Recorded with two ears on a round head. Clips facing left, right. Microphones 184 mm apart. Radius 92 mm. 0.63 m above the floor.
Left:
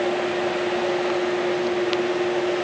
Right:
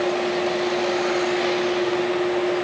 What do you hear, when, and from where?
Only background noise.